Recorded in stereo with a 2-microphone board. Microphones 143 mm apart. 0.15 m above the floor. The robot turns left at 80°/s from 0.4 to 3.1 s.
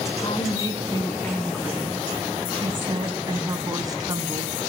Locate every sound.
0.2 s a woman speaking: 80° left, 1.5 m; by 4.5 s 135° right, 1.5 m